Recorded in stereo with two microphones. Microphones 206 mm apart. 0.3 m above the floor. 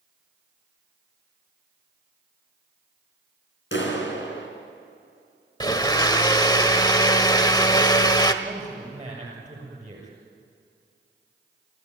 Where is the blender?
20° left (ahead or behind), 1.3 m.